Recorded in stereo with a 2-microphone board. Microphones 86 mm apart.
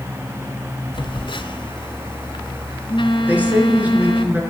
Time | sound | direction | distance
0.9 | a phone buzzing | 75° left (ahead or behind) | 1.4 m
3.3 | a woman speaking | 20° right (ahead or behind) | 4 m